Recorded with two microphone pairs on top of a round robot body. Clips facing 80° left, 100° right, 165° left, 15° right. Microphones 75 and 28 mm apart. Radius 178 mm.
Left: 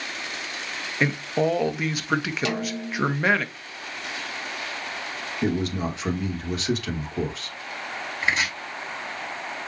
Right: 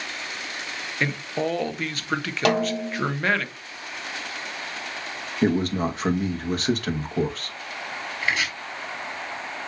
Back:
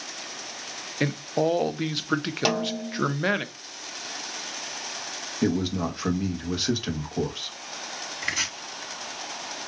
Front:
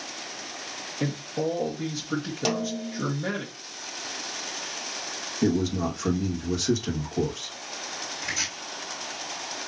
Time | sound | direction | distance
1.0 | a man speaking | 160° left | 0.9 m
2.5 | a snare drum | 135° right | 0.8 m
5.4 | a man speaking | 140° right | 1.2 m
8.2 | chopping | 140° left | 3 m